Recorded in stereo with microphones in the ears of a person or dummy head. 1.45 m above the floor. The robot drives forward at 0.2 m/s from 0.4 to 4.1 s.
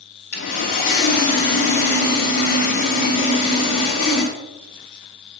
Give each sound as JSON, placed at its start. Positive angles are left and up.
{"t": 0.3, "sound": "sawing", "side_deg": 60, "distance_m": 1.8}